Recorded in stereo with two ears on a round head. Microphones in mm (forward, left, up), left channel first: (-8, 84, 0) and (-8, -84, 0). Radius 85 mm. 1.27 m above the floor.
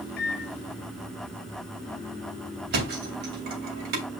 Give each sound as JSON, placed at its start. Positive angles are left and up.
{"t": 0.2, "sound": "a microwave", "side_deg": 55, "distance_m": 1.4}
{"t": 2.7, "sound": "a thud", "side_deg": -55, "distance_m": 3.5}